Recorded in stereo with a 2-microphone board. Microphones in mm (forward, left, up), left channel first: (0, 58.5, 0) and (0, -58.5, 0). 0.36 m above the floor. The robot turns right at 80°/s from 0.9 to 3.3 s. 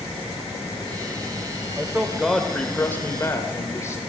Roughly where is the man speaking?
Centre.